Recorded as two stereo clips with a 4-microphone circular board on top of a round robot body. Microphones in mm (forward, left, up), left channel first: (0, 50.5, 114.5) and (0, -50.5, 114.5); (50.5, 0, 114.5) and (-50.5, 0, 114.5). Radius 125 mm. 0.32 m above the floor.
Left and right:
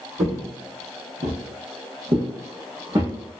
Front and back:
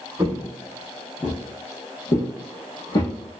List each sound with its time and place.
0.2 s footsteps: 120° right, 1.0 m; by 3.1 s 30° right, 1.5 m